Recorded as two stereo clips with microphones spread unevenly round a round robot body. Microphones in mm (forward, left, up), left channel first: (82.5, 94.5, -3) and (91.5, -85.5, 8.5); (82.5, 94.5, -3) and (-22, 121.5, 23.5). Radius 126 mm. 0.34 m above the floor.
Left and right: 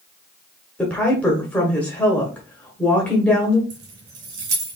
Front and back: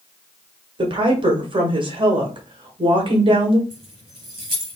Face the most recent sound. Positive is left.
turn(degrees=-125)